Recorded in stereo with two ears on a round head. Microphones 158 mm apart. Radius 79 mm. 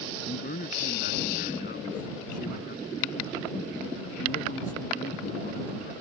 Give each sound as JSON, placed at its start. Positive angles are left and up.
{"t": 0.2, "sound": "a man speaking", "side_deg": 45}